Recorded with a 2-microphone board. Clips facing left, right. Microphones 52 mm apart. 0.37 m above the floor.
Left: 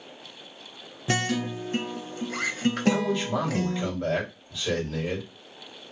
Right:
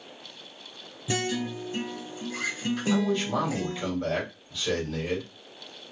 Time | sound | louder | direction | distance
1.1 | a guitar | left 2 dB | 65° left (ahead or behind) | 0.5 m
2.9 | a man speaking | even | 15° left (ahead or behind) | 1.7 m